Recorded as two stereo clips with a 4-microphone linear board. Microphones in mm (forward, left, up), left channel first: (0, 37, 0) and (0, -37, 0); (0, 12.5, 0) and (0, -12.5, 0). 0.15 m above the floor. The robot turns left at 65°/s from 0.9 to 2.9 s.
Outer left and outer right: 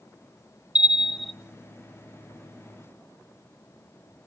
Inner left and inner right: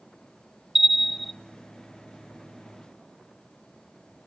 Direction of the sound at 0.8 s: 15° right (ahead or behind).